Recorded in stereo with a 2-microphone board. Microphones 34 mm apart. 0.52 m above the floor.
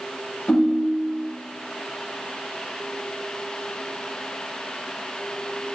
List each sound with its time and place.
0.5 s a ringtone: 60° left (ahead or behind), 1.3 m